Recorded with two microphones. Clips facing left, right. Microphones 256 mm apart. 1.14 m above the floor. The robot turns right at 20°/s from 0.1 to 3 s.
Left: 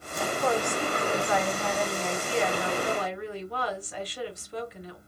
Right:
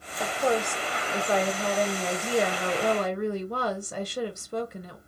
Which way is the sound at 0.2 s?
160° right.